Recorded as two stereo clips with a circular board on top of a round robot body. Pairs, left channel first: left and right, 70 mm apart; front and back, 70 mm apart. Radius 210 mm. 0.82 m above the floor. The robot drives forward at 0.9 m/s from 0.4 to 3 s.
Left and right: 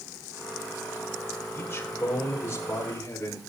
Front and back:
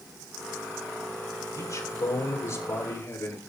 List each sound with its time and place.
1.5 s a man speaking: 25° left, 5 m; by 3.4 s 35° left, 4 m